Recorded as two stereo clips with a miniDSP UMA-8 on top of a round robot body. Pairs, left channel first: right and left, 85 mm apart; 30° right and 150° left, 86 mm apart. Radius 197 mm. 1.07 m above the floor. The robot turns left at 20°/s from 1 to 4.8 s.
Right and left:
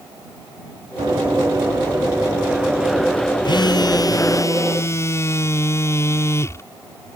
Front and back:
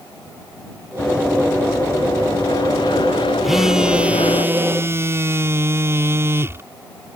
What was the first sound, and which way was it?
Running footsteps, 45° left.